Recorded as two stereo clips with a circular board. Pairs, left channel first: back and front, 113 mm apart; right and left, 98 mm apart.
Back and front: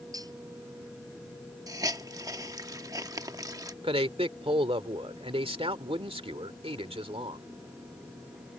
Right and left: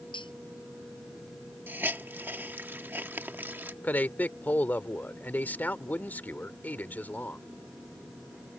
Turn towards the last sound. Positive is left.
turn(degrees=-20)